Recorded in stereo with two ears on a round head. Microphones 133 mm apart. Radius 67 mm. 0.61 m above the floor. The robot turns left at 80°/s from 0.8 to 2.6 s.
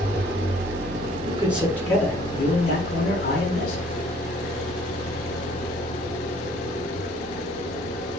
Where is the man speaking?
150° right, 5 m; by 3.8 s 105° left, 5 m.